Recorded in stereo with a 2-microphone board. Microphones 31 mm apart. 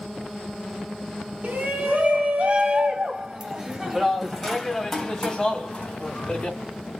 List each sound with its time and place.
1.4 s a shout: 55° right (ahead or behind), 2 m; by 6.6 s 35° left (ahead or behind), 2 m